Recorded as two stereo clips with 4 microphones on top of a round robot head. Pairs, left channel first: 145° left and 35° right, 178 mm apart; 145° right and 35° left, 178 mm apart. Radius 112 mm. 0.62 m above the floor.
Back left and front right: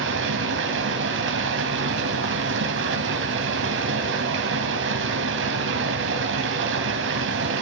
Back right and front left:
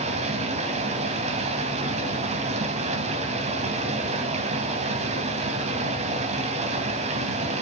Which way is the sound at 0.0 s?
20° right.